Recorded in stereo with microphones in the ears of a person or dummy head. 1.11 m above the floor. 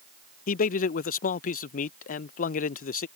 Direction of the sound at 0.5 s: 45° left (ahead or behind).